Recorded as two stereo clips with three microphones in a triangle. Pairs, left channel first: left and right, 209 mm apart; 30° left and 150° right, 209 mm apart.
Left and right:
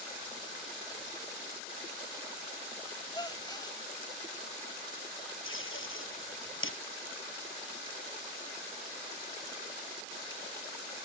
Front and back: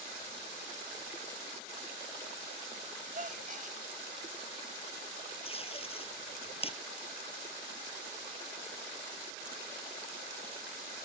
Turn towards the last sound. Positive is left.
turn(degrees=90)